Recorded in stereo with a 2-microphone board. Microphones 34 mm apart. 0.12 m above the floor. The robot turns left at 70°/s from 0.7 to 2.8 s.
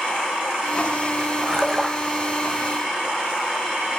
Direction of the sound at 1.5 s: 165° right.